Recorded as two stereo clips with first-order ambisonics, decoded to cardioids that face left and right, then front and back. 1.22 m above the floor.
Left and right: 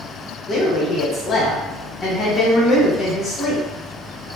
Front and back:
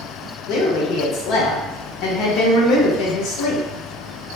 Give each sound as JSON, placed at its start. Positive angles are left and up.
{"t": 0.5, "sound": "a woman speaking", "azimuth_deg": 25, "distance_m": 0.8}